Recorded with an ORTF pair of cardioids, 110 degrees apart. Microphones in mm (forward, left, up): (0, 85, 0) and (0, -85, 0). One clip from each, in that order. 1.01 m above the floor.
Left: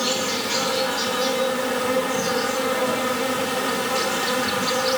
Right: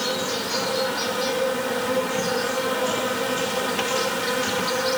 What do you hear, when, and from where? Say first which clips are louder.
0.0 s an insect: left 2 dB; 20° left, 1.3 m